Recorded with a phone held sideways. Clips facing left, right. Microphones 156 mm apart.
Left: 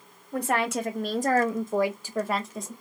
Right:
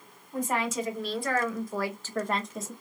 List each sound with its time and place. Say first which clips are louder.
0.3 s a woman speaking: left 3 dB; 75° left (ahead or behind), 0.9 m; by 2.7 s 5° right (ahead or behind), 1.1 m